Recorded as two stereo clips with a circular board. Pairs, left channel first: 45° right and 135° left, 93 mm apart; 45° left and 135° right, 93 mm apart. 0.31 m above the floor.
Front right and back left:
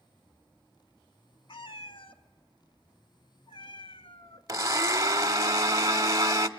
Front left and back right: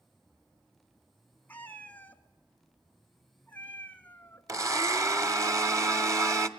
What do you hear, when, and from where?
1.5 s a cat meowing: 25° right, 1.0 m
4.5 s a blender: straight behind, 0.9 m